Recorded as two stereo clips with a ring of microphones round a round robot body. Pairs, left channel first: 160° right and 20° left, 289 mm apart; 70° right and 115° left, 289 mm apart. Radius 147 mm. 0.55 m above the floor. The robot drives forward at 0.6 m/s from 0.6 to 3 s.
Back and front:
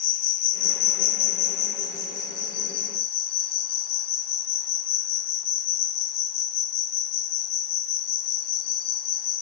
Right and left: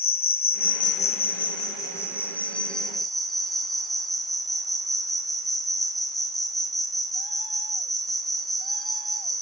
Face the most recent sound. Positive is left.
turn(degrees=-155)